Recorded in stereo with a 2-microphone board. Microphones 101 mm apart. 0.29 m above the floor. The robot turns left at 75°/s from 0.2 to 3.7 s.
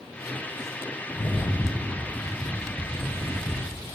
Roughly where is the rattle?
Ahead left.